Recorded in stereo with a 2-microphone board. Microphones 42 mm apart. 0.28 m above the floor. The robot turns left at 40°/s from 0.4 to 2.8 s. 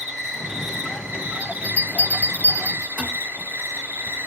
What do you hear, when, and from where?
0.0 s an insect: 5° left, 1.2 m; by 4.3 s 90° right, 1.2 m
1.4 s a bell: 30° right (ahead or behind), 1.7 m